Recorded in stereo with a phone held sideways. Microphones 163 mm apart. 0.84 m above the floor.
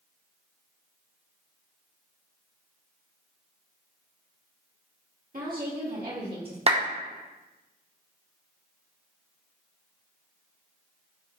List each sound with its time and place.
5.3 s a woman speaking: 60° right (ahead or behind), 1.3 m; by 6.6 s 65° right (ahead or behind), 1.9 m
6.7 s a clap: 40° right (ahead or behind), 0.7 m